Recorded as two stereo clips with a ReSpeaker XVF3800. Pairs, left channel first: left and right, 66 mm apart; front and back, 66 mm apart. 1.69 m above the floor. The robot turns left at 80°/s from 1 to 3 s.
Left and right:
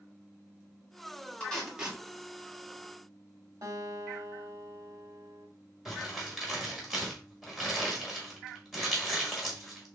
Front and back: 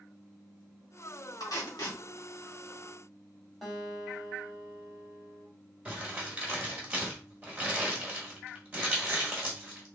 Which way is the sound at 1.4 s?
20° left.